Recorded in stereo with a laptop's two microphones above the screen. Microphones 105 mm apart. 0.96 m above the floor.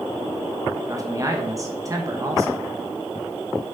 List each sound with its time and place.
0.9 s a man speaking: 30° right (ahead or behind), 1.1 m